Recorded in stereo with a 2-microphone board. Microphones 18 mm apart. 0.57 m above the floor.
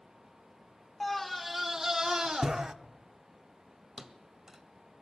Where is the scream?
15° left (ahead or behind), 0.6 m; by 2.7 s 50° right (ahead or behind), 1.1 m.